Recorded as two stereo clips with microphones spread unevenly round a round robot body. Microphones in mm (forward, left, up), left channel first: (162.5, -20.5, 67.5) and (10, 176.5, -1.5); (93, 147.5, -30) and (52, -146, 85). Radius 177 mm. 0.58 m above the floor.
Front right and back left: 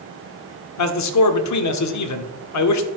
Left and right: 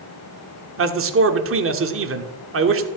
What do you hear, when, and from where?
0.8 s a man speaking: 45° right, 1.5 m